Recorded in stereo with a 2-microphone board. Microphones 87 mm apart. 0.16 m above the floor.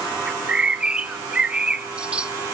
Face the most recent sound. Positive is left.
turn(degrees=-15)  # may be behind; listen again after turning